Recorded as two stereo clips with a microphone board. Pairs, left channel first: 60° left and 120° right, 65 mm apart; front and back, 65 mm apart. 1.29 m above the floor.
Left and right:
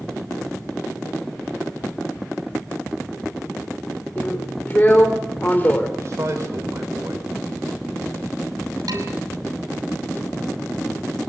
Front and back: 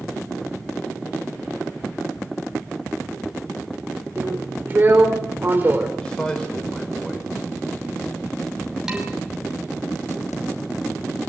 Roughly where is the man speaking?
Right.